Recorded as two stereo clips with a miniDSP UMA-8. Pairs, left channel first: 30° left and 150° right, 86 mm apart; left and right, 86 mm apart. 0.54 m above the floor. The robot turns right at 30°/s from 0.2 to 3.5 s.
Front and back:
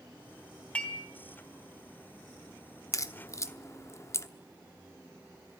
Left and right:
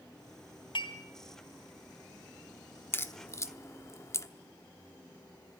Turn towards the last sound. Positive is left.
turn(degrees=60)